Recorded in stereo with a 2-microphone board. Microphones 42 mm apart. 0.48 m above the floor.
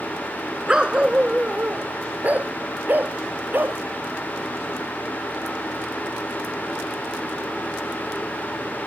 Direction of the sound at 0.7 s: 20° right (ahead or behind).